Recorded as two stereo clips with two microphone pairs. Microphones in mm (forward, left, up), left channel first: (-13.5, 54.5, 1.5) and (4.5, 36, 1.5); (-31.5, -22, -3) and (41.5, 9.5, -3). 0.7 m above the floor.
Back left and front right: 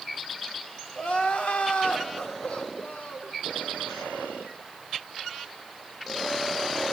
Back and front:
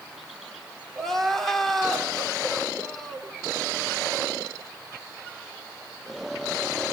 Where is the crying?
120° left, 2.5 m.